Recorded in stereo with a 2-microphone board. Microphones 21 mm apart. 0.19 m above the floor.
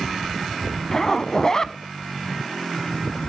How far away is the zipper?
About 0.6 m.